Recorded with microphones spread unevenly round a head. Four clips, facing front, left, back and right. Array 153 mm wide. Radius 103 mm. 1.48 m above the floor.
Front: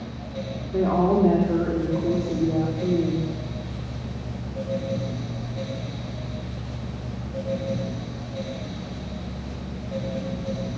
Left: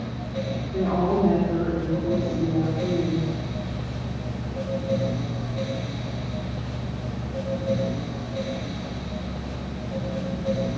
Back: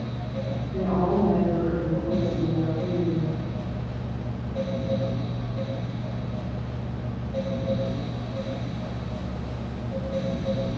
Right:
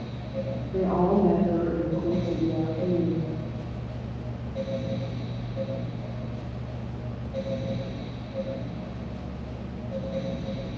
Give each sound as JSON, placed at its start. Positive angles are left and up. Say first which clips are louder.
{"t": 0.7, "sound": "a woman speaking", "louder": "even, front 4 dB", "azimuth_deg": -35, "distance_m": 4.5}